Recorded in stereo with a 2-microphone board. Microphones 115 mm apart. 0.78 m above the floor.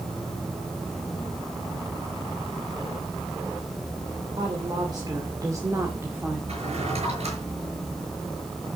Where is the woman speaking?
45° right (ahead or behind), 2.5 m; by 6.4 s 15° right (ahead or behind), 2 m.